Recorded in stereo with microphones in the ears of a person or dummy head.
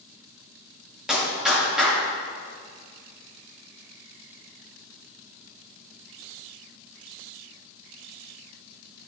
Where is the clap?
Centre (ahead or behind), 2.5 m.